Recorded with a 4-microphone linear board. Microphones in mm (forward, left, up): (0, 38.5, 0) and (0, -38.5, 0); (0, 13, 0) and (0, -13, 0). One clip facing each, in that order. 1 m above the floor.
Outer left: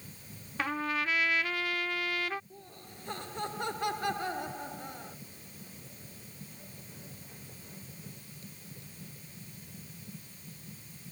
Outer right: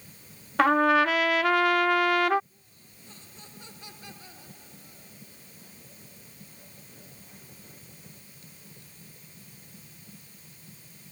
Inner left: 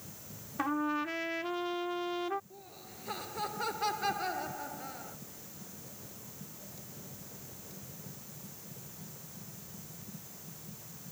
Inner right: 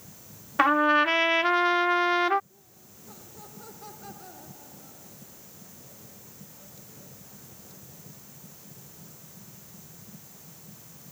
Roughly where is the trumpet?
Right.